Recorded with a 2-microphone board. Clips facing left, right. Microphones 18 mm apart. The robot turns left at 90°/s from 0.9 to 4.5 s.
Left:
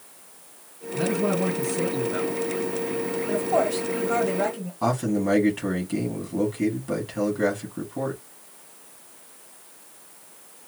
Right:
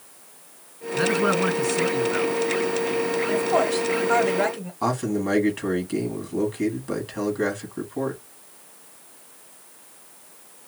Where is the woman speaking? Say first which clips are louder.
Even; 5° left (ahead or behind), 1.0 m; by 4.7 s 30° right (ahead or behind), 1.0 m.